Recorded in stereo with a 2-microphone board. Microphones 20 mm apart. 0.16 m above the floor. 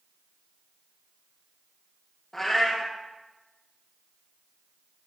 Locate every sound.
2.3 s a cat meowing: 10° left (ahead or behind), 1.9 m